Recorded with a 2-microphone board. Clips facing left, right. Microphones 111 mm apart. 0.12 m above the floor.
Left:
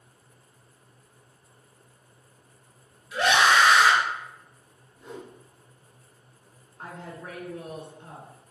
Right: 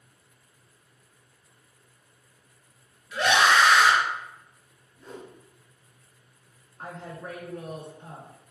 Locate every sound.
3.1 s a scream: 15° left (ahead or behind), 1.9 m
5.0 s a whoosh: 10° left (ahead or behind), 1.1 m
6.8 s a woman speaking: centre (ahead or behind), 1.1 m